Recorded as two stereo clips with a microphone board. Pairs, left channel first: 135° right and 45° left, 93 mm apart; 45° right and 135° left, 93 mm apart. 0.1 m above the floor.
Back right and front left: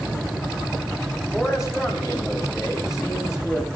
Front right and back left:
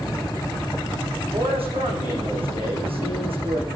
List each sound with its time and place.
1.3 s a man speaking: 130° left, 4.5 m